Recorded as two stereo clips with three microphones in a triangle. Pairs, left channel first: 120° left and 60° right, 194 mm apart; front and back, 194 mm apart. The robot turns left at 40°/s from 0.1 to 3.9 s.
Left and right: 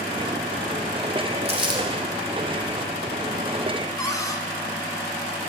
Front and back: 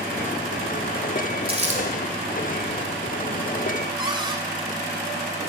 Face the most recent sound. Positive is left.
turn(degrees=165)